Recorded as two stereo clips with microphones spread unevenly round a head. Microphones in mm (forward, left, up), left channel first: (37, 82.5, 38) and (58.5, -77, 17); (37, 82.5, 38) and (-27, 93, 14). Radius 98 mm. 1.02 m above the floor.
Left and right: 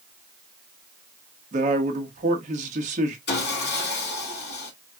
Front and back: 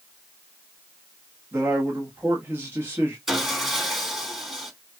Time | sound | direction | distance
1.5 | a man speaking | 130° right | 1.3 m
3.3 | sawing | 90° left | 3 m